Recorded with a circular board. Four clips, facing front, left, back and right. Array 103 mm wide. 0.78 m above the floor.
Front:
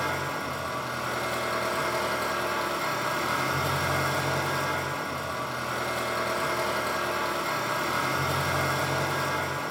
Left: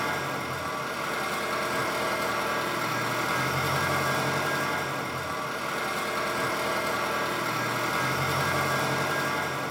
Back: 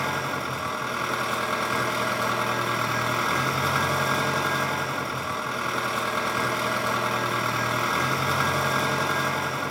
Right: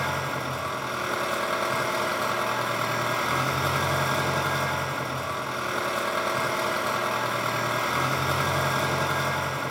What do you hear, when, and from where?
0.0 s an engine running: 160° right, 1.6 m